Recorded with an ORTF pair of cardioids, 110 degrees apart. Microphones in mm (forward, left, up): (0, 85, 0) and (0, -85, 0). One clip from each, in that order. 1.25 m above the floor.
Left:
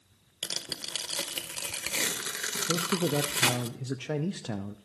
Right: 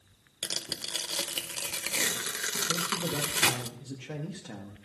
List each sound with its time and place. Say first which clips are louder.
0.4 s tearing paper: right 1 dB; 5° right, 0.8 m
2.7 s a man speaking: left 2 dB; 45° left, 0.6 m